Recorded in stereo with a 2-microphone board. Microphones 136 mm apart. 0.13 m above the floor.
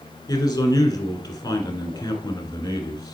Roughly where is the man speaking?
Left.